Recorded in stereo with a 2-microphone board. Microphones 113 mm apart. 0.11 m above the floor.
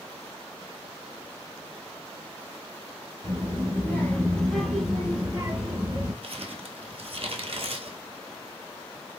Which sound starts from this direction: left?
A child speaking, at 3.2 s.